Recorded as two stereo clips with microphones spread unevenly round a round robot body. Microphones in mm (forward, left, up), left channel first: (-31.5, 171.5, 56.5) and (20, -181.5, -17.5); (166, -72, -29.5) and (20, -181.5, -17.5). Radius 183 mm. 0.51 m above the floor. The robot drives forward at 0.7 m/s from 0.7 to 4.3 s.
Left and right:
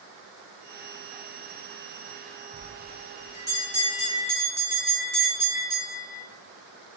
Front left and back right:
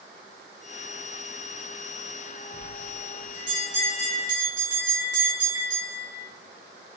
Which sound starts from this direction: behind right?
A bell, at 2.5 s.